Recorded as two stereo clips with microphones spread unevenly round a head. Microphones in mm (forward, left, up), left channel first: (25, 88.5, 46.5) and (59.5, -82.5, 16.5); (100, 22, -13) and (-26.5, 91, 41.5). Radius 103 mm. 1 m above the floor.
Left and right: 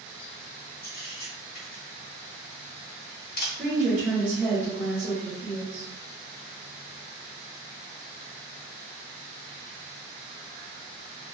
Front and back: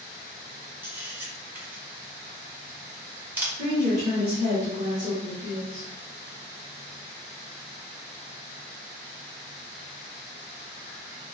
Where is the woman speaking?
155° right, 0.9 m.